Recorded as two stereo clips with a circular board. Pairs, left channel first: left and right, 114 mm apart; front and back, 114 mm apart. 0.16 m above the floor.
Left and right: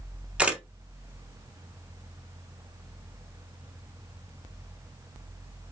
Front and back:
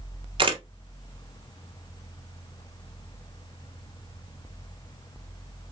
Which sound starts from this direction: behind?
A camera shutter, at 0.4 s.